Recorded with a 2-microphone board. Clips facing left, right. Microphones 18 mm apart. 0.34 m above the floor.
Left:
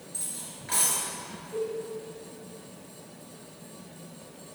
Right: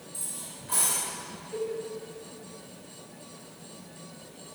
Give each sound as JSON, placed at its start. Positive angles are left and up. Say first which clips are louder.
{"t": 0.1, "sound": "cutlery clinking", "louder": "left 1 dB", "side_deg": 40, "distance_m": 3.5}
{"t": 1.5, "sound": "a cowbell", "louder": "left 1 dB", "side_deg": -10, "distance_m": 2.5}